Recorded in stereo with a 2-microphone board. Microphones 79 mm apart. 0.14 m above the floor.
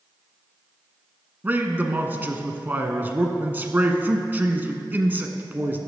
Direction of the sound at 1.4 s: 25° right (ahead or behind).